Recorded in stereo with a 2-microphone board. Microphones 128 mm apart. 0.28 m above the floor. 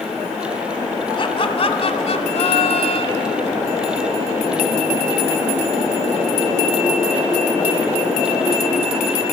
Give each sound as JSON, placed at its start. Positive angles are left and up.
{"t": 1.2, "sound": "laughter", "side_deg": 40, "distance_m": 2.5}